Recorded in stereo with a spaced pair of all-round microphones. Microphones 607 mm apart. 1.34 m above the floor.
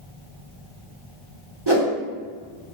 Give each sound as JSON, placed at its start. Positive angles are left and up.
{"t": 1.7, "sound": "a whoosh", "side_deg": -40, "distance_m": 1.3}